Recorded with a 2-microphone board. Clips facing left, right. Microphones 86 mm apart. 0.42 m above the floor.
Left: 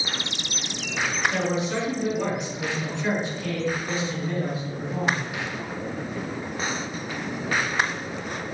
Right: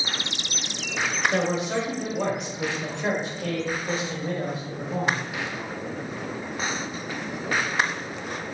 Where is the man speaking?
30° right (ahead or behind), 1.6 m.